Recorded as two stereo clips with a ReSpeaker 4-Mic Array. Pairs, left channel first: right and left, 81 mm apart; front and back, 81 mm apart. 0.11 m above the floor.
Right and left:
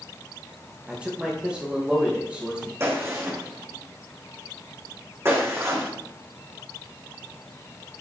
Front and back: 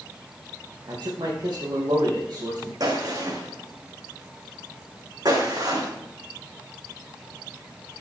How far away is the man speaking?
About 3.5 m.